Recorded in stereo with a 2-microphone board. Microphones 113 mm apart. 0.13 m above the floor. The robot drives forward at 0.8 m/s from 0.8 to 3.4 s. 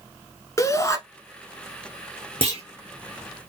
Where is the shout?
30° left (ahead or behind), 1.2 m.